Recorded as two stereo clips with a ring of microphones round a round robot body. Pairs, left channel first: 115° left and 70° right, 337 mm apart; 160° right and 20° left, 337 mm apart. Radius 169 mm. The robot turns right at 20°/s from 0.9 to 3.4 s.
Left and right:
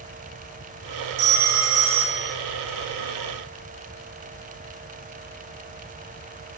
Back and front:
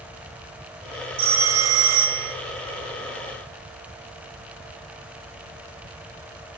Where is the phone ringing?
30° right, 0.9 m; by 2.4 s 10° right, 0.9 m.